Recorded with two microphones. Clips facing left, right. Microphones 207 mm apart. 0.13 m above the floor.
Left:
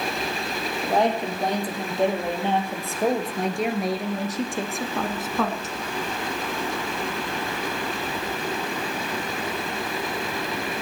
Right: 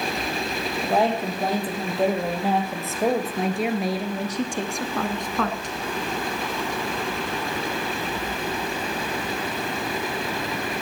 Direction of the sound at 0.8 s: 5° right (ahead or behind).